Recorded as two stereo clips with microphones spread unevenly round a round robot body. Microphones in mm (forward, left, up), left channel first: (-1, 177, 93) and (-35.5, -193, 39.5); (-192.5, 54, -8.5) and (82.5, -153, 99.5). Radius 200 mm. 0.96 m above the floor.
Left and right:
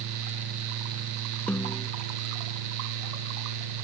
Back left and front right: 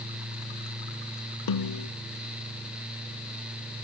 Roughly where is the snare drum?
Behind.